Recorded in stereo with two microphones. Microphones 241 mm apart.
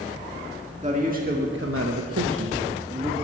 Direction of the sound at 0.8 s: 30° right (ahead or behind).